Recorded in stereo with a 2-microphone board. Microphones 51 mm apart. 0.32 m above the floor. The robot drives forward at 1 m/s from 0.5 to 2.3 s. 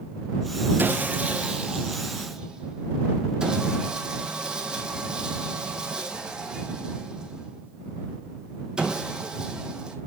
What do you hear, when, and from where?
0.8 s sawing: 40° right (ahead or behind), 1.1 m; by 10.0 s 15° right (ahead or behind), 2.5 m